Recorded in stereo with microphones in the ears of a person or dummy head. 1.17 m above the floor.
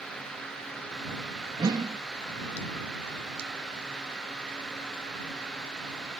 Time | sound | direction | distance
1.6 | a whoosh | 20° right (ahead or behind) | ?